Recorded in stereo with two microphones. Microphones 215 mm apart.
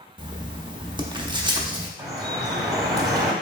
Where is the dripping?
20° right (ahead or behind), 0.7 m.